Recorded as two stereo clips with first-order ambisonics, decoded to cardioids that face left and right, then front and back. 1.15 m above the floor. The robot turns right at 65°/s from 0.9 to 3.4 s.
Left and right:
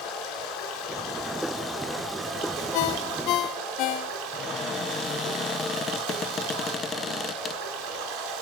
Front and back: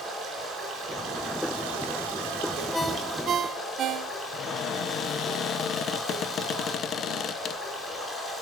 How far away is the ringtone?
About 0.7 m.